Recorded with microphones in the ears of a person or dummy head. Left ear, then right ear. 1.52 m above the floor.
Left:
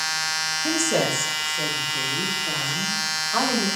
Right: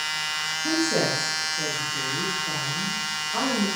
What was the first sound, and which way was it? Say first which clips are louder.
A woman speaking: even; 50° left (ahead or behind).